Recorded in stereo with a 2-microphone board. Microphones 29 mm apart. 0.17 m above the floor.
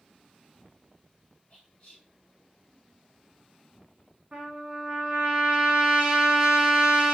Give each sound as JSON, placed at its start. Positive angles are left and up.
{"t": 1.5, "sound": "whispering", "side_deg": 40, "distance_m": 2.0}
{"t": 4.3, "sound": "a trumpet", "side_deg": -35, "distance_m": 1.1}